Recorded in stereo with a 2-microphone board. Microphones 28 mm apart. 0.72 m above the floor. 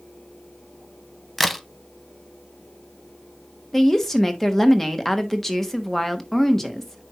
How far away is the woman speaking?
About 1.1 m.